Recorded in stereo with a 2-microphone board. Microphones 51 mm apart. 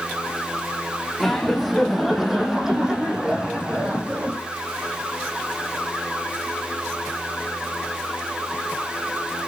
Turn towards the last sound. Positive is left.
turn(degrees=-25)  # may be behind; listen again after turning